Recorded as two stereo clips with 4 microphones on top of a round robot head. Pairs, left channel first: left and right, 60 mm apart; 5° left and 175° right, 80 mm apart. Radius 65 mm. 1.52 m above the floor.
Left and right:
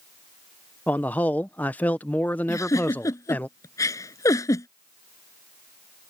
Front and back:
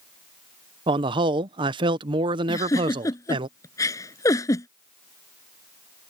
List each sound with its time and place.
0.9 s a man speaking: 160° left
2.5 s a giggle: 55° left